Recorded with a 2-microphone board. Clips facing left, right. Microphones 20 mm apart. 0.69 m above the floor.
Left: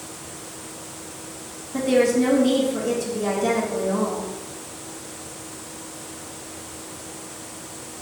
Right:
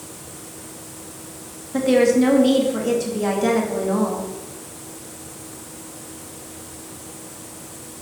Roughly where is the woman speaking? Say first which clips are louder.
Right 3 dB; right.